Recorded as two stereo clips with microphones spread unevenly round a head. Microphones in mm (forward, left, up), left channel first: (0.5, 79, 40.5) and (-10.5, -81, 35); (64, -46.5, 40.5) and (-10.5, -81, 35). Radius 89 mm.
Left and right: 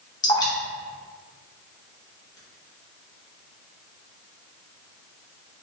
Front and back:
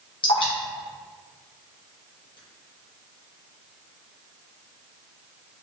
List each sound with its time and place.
0.2 s dripping: 20° left, 1.0 m